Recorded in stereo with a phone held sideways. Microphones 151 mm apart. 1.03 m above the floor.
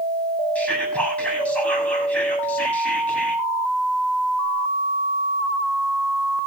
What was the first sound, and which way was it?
Whispering, 10° left (ahead or behind).